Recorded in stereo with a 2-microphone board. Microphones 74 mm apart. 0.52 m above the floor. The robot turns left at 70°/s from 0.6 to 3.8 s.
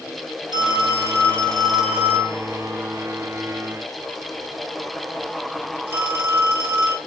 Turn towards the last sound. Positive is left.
turn(degrees=-30)  # may be behind; listen again after turning